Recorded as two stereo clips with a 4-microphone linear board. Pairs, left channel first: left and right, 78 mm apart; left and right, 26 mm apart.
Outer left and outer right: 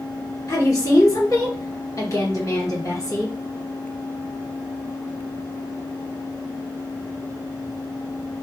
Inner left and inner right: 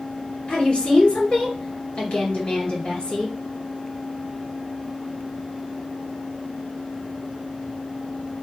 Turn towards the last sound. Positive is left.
turn(degrees=45)  # may be behind; listen again after turning